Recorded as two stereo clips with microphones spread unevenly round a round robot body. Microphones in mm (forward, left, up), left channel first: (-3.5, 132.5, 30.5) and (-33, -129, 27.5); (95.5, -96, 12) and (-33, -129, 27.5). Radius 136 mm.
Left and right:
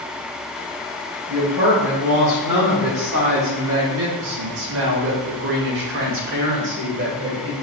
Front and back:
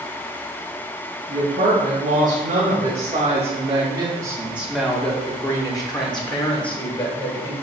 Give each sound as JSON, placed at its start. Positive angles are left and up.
{"t": 1.3, "sound": "a woman speaking", "azimuth_deg": -160, "distance_m": 1.9}